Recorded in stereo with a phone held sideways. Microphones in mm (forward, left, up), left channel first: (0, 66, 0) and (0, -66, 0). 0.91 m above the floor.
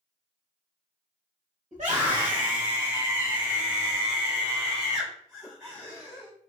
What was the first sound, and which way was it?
A scream, 55° right (ahead or behind).